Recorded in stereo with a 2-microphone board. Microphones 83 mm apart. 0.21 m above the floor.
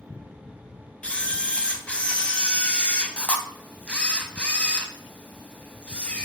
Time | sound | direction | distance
1.0 | a camera shutter | 15° left (ahead or behind) | 0.9 m